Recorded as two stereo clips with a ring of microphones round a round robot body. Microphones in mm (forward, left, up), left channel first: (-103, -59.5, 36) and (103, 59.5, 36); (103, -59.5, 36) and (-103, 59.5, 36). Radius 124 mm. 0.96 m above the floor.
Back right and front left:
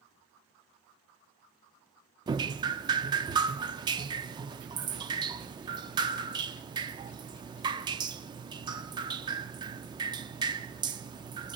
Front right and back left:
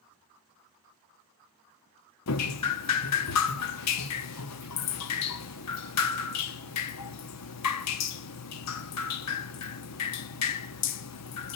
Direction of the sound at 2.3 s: 40° right.